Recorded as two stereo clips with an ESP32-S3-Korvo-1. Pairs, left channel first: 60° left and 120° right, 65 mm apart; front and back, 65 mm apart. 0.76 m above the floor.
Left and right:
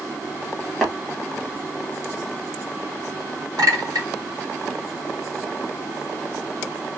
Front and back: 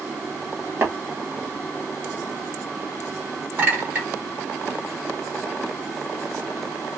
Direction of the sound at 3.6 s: 120° right.